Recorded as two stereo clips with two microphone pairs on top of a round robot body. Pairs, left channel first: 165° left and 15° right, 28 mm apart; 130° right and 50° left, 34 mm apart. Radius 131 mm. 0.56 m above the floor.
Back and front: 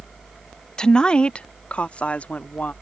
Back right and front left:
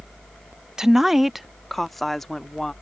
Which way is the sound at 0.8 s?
135° left.